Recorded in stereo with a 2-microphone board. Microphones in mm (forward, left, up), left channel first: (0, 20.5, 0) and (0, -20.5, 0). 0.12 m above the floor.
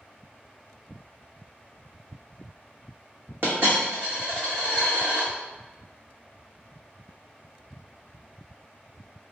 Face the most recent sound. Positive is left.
turn(degrees=-70)  # may be behind; listen again after turning